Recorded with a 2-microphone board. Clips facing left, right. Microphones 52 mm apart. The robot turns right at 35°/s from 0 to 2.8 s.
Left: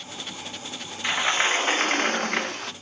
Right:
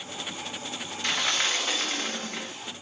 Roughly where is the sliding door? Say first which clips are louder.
Left 5 dB; ahead.